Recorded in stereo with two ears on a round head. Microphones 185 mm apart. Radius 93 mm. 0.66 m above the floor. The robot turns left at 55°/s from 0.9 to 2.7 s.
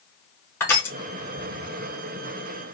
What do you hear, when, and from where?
0.6 s crushing: 10° left (ahead or behind), 0.8 m